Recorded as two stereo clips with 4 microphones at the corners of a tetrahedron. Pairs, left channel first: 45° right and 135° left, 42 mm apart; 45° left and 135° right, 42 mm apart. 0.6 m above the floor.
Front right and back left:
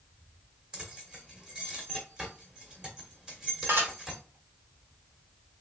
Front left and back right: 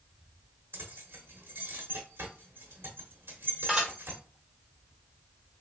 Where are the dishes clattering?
145° left, 1.6 m.